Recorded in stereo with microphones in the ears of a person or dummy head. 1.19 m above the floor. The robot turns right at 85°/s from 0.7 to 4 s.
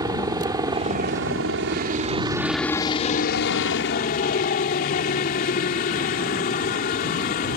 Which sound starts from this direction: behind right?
A helicopter, at 0.0 s.